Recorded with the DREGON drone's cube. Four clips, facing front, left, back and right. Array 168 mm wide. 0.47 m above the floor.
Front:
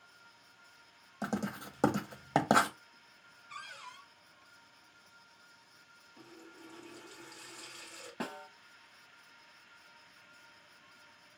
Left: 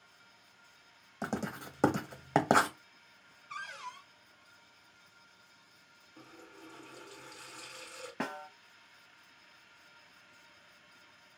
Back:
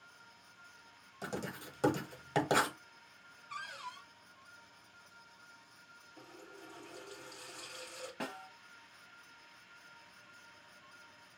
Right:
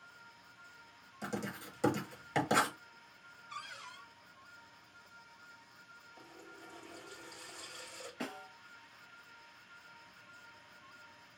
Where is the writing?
55° left, 0.8 m.